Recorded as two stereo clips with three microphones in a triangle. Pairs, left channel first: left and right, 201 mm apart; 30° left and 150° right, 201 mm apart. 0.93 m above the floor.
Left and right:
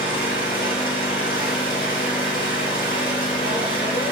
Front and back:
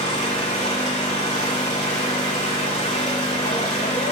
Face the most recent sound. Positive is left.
turn(degrees=80)